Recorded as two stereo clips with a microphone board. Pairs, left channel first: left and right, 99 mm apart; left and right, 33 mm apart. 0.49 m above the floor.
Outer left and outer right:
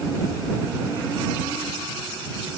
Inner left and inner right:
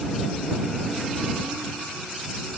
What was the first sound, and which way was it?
Only background noise.